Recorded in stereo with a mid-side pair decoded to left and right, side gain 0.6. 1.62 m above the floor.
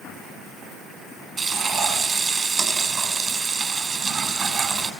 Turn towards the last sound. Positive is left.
turn(degrees=-30)